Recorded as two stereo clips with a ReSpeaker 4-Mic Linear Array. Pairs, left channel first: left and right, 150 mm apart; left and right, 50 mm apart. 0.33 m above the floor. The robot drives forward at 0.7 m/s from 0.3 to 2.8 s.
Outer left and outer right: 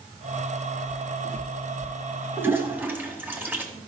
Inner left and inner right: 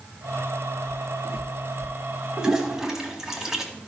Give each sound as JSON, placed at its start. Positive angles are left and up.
{"t": 0.9, "sound": "footsteps", "side_deg": -5, "distance_m": 5.0}
{"t": 2.4, "sound": "a toilet flushing", "side_deg": -15, "distance_m": 1.3}